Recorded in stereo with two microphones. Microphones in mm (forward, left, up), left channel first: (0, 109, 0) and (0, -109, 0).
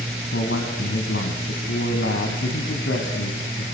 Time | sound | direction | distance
0.3 | a man speaking | 65° left (ahead or behind) | 3 m